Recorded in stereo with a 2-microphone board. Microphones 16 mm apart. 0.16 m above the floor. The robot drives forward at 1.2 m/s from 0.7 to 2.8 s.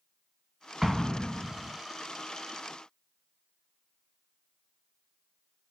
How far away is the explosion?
About 0.8 m.